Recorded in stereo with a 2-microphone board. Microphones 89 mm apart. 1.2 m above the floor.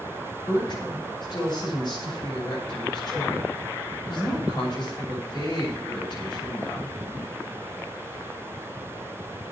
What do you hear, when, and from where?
0.5 s a woman speaking: 55° left (ahead or behind), 6.5 m